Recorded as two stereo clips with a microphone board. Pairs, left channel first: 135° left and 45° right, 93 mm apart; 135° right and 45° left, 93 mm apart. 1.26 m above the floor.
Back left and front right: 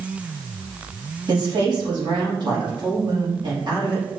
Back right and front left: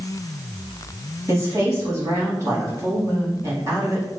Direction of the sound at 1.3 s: 10° right.